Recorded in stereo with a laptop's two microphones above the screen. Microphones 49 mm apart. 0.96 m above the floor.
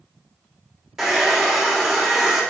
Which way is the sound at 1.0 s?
10° right (ahead or behind).